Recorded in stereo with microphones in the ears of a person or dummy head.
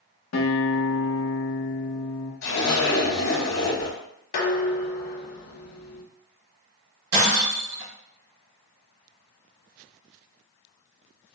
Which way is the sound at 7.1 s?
65° right (ahead or behind).